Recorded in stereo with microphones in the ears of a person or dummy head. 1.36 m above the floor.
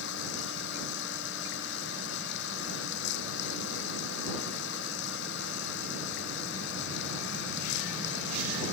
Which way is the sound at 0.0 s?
70° left (ahead or behind).